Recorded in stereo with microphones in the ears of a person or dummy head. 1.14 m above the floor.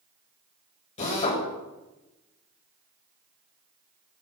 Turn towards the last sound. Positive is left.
turn(degrees=40)  # may be behind; listen again after turning